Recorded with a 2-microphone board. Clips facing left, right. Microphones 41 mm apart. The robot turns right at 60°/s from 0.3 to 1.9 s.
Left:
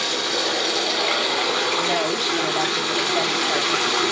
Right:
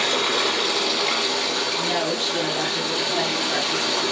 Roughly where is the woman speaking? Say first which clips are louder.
Left 2 dB; left.